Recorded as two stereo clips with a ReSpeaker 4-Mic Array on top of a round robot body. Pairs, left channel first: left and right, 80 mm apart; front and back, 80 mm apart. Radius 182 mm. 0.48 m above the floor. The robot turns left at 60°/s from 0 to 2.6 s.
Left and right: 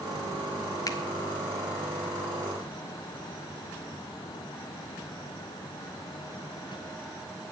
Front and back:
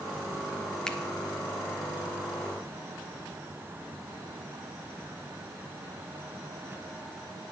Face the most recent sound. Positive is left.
turn(degrees=-20)